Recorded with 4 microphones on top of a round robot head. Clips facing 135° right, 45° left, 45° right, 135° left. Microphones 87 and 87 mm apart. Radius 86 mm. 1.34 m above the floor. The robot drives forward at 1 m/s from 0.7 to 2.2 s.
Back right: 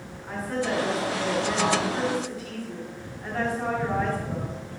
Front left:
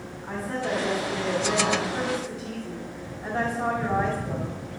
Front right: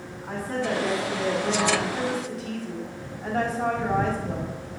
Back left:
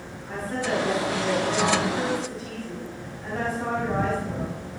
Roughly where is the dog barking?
I don't hear a dog barking.